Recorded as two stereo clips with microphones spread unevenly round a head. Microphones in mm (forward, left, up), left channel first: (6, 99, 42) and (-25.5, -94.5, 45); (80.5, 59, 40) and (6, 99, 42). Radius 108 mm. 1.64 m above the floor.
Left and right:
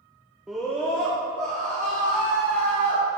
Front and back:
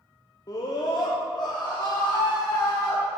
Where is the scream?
15° right, 0.5 m; by 3.0 s 10° left, 2.5 m.